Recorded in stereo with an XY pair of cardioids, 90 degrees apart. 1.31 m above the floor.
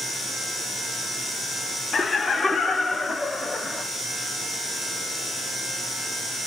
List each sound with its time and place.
1.9 s laughter: 45° left, 0.9 m; by 3.8 s 30° left, 2.5 m